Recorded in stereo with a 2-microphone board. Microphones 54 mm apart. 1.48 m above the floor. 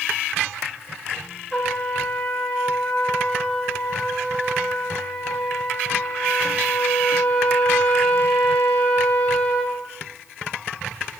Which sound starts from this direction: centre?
A trumpet, at 1.5 s.